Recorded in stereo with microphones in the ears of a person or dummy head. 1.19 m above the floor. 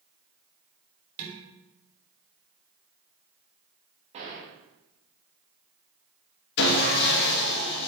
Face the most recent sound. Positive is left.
turn(degrees=60)  # may be behind; listen again after turning